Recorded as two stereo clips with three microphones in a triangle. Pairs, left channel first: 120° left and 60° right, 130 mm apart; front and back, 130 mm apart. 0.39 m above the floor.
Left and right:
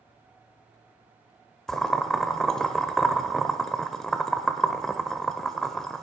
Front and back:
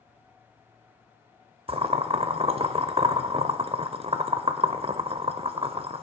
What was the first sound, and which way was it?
Boiling, 155° right.